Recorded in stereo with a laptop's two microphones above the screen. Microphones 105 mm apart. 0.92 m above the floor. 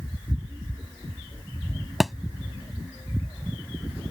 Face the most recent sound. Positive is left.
turn(degrees=0)  # may be behind; listen again after turning